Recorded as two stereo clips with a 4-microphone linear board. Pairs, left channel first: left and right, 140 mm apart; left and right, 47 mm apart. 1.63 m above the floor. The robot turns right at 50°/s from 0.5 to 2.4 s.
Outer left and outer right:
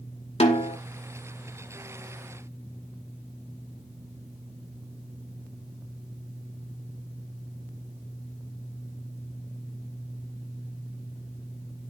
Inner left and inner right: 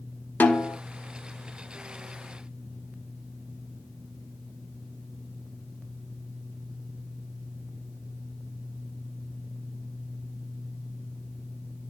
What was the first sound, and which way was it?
A snare drum, 50° left (ahead or behind).